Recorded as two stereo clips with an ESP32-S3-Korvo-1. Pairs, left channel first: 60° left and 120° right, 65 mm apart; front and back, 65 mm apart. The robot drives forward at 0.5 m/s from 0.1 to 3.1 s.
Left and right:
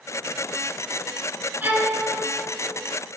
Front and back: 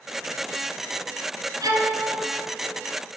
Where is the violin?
Straight behind, 1.0 m.